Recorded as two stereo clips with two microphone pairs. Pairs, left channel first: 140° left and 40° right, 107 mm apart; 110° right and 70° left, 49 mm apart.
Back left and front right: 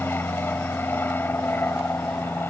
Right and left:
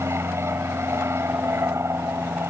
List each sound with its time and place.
0.0 s an aircraft: 70° left